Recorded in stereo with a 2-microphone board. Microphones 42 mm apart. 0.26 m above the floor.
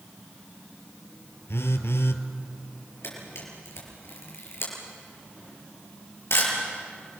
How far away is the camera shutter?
About 6 m.